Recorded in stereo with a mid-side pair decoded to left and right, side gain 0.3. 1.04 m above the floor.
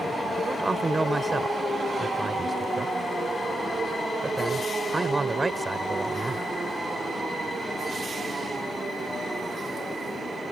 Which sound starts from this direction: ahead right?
A man speaking, at 0.4 s.